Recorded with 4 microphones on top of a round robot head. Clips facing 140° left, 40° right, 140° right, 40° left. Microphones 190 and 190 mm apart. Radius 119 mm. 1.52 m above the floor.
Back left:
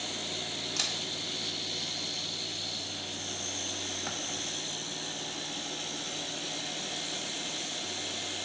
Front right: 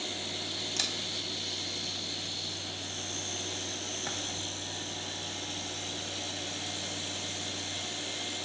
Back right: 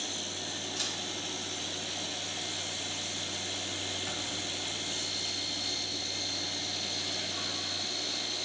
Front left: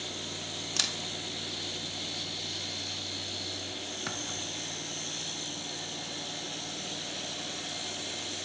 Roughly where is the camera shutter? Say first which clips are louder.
Even, even; ahead left.